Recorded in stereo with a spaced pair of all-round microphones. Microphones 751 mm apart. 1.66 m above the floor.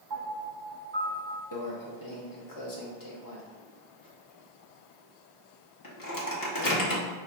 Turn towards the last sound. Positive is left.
turn(degrees=30)  # may be behind; listen again after turning